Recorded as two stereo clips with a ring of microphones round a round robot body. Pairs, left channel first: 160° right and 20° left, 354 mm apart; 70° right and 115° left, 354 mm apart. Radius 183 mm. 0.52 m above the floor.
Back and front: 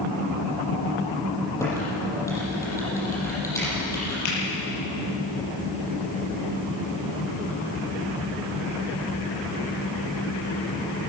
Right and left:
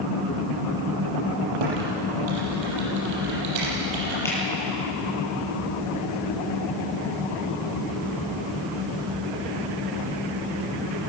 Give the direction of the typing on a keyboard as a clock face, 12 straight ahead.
8 o'clock.